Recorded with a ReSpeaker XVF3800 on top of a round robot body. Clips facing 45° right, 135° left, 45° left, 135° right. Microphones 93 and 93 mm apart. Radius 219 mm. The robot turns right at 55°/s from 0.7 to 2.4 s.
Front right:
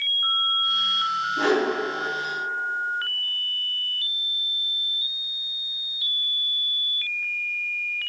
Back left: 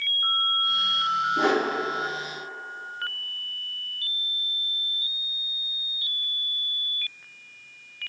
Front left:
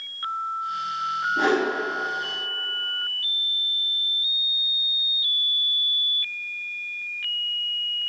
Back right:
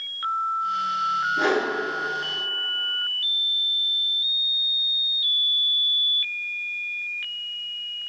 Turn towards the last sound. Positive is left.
turn(degrees=155)